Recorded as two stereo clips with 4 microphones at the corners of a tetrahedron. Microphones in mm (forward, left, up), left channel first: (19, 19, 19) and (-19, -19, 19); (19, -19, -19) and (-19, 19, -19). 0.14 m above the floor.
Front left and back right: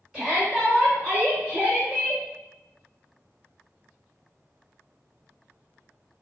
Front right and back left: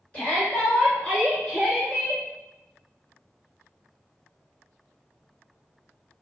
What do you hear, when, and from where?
0.1 s a shout: 80° right, 1.9 m; by 2.2 s 130° right, 2 m